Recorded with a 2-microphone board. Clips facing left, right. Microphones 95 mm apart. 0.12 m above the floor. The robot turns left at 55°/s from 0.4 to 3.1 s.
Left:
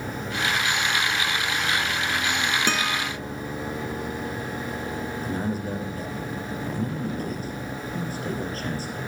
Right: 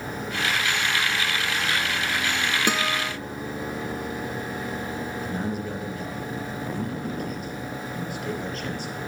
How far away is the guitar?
About 0.6 m.